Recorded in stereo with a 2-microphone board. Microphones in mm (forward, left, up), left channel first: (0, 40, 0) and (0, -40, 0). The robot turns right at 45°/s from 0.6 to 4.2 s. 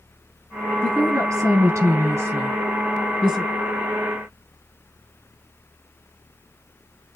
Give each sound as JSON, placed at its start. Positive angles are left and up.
{"t": 0.8, "sound": "a woman speaking", "azimuth_deg": -120, "distance_m": 1.7}